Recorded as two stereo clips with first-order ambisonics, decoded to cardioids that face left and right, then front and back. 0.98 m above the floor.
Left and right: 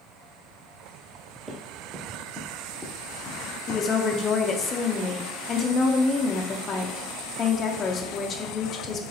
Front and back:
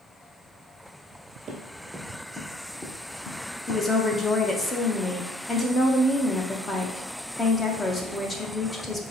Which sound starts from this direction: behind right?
Running footsteps, at 1.5 s.